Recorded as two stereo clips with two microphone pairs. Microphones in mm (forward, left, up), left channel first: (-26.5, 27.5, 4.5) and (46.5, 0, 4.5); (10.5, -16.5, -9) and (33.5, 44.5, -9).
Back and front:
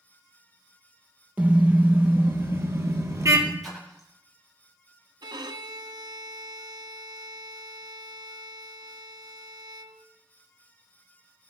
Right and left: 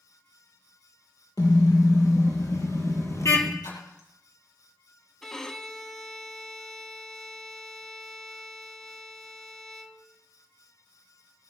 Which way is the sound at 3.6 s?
110° right.